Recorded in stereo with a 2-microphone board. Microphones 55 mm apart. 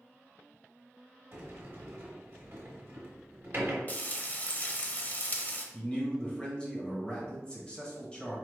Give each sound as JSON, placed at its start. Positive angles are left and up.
{"t": 1.3, "sound": "a sliding door", "side_deg": -40, "distance_m": 1.3}
{"t": 3.9, "sound": "frying", "side_deg": 35, "distance_m": 0.6}
{"t": 5.7, "sound": "a man speaking", "side_deg": 20, "distance_m": 1.1}